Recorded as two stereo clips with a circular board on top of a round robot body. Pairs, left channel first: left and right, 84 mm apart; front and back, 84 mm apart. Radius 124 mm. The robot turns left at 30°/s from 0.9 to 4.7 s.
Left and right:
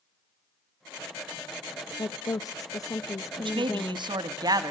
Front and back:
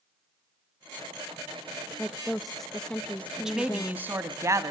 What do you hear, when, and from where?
2.0 s a woman speaking: 100° left, 0.6 m; by 4.1 s 40° left, 0.6 m
3.4 s a man speaking: 95° right, 1.1 m; by 4.7 s 135° right, 1.1 m